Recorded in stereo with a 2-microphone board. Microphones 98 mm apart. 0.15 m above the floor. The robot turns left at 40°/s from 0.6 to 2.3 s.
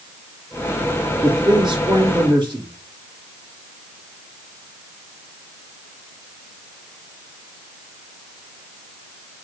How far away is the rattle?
No rattle in this recording.